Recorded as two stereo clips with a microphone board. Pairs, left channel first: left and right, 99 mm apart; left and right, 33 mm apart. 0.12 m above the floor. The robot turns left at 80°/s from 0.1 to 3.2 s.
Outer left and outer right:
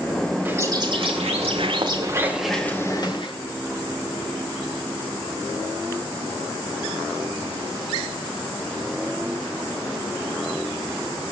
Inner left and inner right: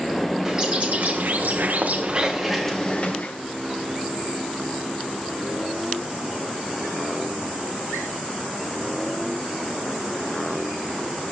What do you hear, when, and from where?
0.5 s a bird: 20° right, 4.5 m; by 3.3 s 120° left, 4.5 m